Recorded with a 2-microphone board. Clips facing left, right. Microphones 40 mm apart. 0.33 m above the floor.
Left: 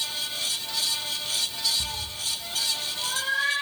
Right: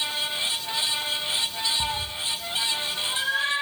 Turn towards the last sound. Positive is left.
turn(degrees=-50)  # may be behind; listen again after turning